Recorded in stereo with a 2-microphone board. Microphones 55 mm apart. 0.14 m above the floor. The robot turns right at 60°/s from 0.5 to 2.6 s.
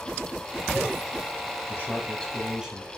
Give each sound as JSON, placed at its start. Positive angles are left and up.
{"t": 1.7, "sound": "a man speaking", "azimuth_deg": 130, "distance_m": 4.5}